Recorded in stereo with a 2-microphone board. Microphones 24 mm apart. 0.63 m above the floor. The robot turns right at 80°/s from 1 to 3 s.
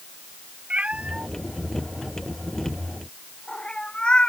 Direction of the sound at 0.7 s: 55° right (ahead or behind).